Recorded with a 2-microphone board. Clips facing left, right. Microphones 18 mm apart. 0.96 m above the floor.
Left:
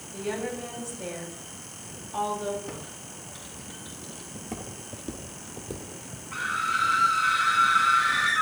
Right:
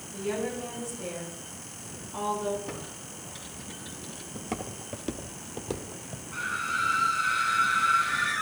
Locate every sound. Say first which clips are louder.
0.1 s a woman speaking: even; 40° left (ahead or behind), 6.5 m
2.7 s typing on a keyboard: even; 5° left (ahead or behind), 5.5 m
4.3 s footsteps: right 4 dB; 35° right (ahead or behind), 1.1 m; by 6.2 s 50° right (ahead or behind), 1.6 m
6.3 s a scream: left 3 dB; 65° left (ahead or behind), 1.7 m